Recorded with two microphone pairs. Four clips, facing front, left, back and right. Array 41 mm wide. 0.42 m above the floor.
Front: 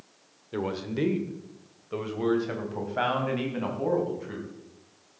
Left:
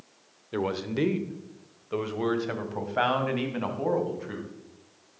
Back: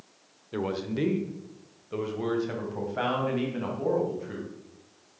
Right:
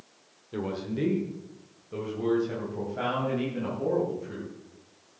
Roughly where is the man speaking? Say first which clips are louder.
Left 3 dB, even; left.